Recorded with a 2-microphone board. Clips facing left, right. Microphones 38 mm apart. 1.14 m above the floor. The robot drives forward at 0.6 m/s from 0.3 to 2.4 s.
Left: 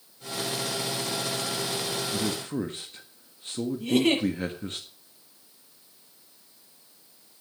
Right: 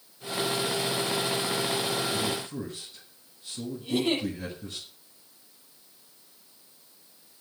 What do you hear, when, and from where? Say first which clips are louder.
2.1 s a man speaking: left 1 dB; 60° left (ahead or behind), 1.4 m; by 4.8 s 55° left (ahead or behind), 1.5 m
3.8 s a giggle: left 4 dB; 85° left, 8 m